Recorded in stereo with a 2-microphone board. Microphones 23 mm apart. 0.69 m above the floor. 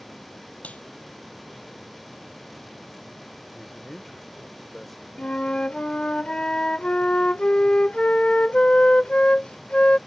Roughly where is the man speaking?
Centre.